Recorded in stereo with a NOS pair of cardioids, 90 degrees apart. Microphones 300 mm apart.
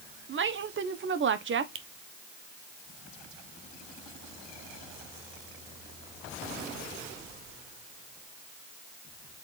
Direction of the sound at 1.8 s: 40° right.